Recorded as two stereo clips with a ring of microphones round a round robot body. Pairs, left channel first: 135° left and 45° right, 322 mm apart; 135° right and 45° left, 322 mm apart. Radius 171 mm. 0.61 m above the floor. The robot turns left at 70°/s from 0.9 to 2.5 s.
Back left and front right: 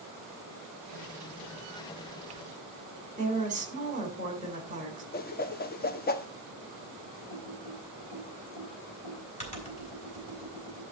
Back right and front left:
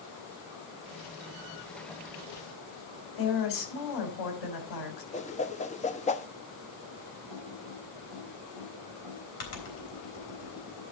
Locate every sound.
3.2 s a woman speaking: 115° right, 3 m
5.1 s a whoosh: 175° left, 0.8 m
7.3 s typing on a keyboard: 155° right, 3.5 m